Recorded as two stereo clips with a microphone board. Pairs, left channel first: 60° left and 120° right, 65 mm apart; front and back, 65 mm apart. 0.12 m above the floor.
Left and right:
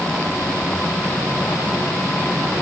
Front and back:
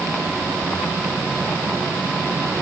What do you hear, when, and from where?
Only background noise.